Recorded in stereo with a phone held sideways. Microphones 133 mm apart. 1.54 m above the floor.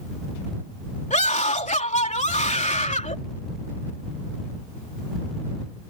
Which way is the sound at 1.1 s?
65° left (ahead or behind).